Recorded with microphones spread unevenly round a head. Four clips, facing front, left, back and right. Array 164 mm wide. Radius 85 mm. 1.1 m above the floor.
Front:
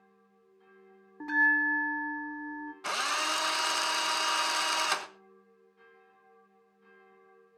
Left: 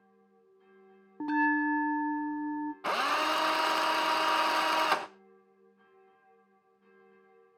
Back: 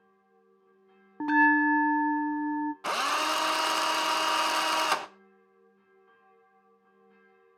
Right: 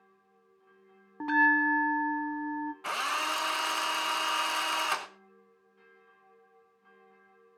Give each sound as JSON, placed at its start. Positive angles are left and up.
{"t": 1.2, "sound": "a bell", "azimuth_deg": -155, "distance_m": 0.8}
{"t": 2.8, "sound": "a drill", "azimuth_deg": 115, "distance_m": 0.9}